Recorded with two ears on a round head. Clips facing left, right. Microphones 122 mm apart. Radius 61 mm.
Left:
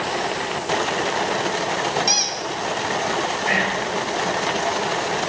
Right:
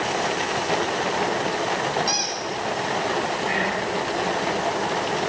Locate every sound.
2.1 s a squeak: 25° left (ahead or behind), 1.0 m
3.5 s whispering: 70° left (ahead or behind), 1.5 m